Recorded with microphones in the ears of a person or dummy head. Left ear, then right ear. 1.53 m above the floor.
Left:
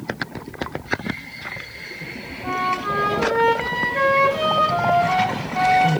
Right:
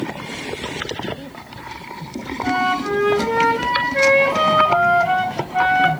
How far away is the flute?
About 4.5 m.